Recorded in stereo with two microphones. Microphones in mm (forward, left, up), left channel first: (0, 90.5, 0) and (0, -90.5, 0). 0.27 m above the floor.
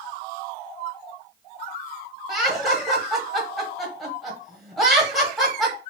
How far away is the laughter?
About 1.1 m.